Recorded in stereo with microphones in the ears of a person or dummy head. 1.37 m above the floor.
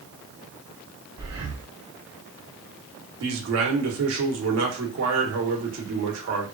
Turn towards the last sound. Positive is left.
turn(degrees=-65)  # may be behind; listen again after turning